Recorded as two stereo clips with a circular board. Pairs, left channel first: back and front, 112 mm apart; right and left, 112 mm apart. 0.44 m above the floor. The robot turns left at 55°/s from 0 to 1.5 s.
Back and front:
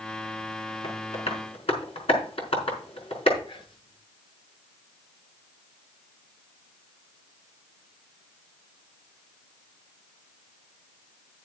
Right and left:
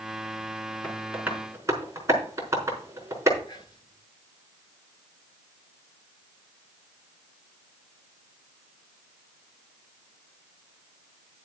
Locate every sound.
0.8 s tapping: 170° right, 5 m; by 3.4 s 155° left, 5 m
3.5 s whispering: 140° right, 7.5 m